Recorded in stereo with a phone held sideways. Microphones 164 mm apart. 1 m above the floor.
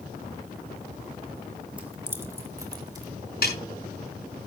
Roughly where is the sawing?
No sawing in this recording.